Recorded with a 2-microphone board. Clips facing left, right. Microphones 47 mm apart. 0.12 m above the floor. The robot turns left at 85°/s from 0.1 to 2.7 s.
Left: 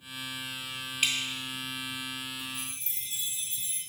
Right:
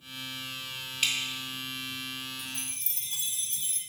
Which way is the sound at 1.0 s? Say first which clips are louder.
Left 1 dB; 10° left (ahead or behind).